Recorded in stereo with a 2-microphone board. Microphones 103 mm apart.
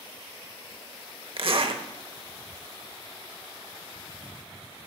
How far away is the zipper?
About 1.1 m.